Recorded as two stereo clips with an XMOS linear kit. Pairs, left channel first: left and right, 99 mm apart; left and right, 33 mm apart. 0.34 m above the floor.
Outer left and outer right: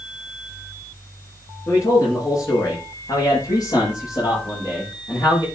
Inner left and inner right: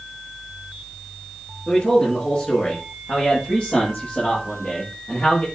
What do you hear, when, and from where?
1.7 s a man speaking: 40° left (ahead or behind), 6.5 m; by 5.5 s 45° left (ahead or behind), 8.5 m